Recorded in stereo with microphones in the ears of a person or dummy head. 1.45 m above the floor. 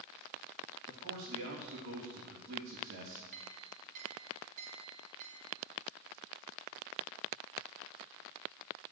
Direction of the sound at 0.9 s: 70° right (ahead or behind).